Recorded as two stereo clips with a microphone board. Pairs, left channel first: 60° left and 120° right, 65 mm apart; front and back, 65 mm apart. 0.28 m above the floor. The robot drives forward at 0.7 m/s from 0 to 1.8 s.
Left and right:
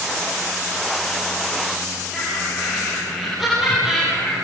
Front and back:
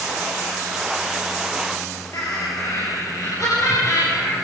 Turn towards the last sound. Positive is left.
turn(degrees=-35)